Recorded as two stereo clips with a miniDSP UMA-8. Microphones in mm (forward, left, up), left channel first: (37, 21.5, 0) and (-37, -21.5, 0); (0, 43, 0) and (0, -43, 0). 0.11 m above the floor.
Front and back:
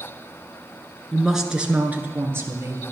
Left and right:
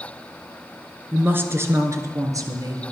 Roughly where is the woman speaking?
Ahead right.